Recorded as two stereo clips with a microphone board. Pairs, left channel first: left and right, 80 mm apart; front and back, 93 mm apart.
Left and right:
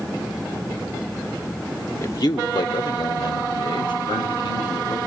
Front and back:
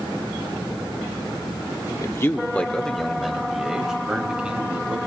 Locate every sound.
2.0 s a man speaking: 45° left, 1.0 m; by 5.0 s 100° left, 4.5 m